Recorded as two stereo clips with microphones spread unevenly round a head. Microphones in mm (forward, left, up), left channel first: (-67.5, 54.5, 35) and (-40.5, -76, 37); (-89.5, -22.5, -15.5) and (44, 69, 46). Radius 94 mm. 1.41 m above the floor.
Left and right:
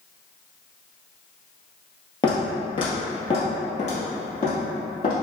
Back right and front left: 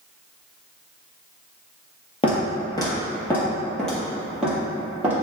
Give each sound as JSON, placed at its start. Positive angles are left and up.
{"t": 2.2, "sound": "footsteps", "azimuth_deg": 145, "distance_m": 1.7}